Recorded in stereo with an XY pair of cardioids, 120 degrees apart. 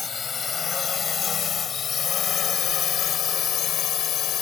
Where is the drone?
40° left; by 4.4 s 70° left.